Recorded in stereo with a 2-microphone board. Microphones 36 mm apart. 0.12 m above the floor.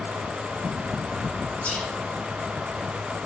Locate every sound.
1.6 s whispering: 40° left (ahead or behind), 1.4 m